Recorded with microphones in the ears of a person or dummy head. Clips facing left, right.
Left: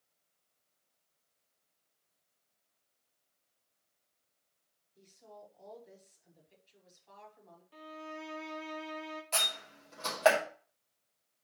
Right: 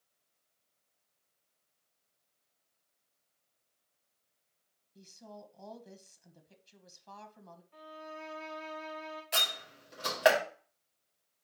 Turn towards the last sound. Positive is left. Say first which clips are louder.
# even
turn(degrees=-15)  # may be behind; listen again after turning